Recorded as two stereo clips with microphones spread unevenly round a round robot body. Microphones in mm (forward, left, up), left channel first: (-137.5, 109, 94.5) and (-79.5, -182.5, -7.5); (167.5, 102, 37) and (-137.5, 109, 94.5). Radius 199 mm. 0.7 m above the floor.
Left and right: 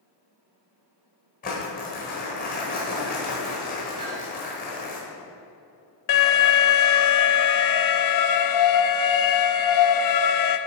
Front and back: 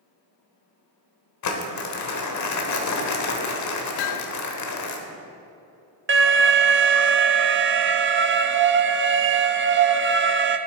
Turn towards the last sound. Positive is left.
turn(degrees=120)